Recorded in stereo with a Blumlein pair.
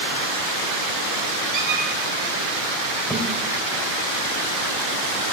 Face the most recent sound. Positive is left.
turn(degrees=5)